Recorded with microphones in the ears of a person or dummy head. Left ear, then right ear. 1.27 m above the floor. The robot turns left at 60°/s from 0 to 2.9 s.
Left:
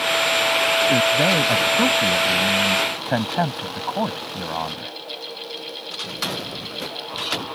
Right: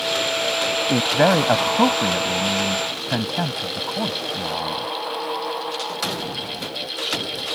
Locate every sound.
0.9 s a man speaking: 90° right; by 4.9 s 150° left